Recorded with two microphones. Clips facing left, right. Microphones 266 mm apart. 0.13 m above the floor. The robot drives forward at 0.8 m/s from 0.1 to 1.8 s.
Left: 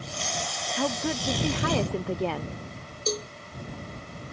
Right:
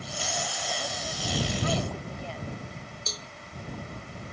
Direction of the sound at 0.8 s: 80° left.